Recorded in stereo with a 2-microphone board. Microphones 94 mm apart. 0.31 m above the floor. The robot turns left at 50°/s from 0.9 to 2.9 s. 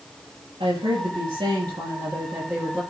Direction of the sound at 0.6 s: 85° right.